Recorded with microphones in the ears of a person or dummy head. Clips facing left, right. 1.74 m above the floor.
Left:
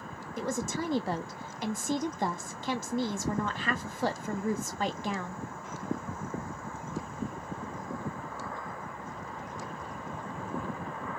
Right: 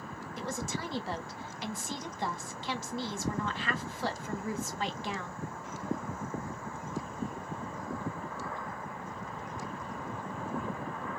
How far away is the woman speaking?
About 0.6 m.